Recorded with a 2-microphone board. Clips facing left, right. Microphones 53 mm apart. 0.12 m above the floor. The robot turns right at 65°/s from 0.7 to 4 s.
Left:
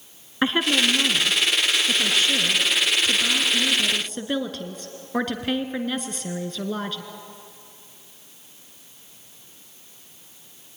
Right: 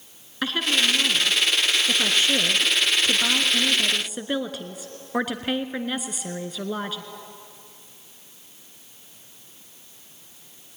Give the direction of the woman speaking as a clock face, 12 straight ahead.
7 o'clock.